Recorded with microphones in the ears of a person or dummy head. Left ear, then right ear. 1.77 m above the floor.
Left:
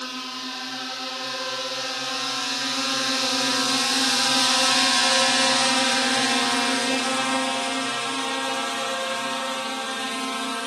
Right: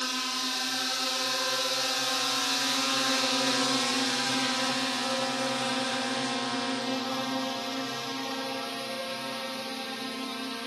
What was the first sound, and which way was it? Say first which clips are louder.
A drone: right 1 dB; 5° right (ahead or behind).